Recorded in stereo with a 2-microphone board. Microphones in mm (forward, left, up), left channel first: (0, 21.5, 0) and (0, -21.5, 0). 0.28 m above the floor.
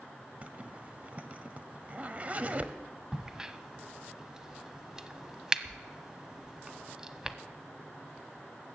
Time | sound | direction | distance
0.4 | a zipper | 30° right (ahead or behind) | 1.0 m
3.1 | a crack | 10° right (ahead or behind) | 0.8 m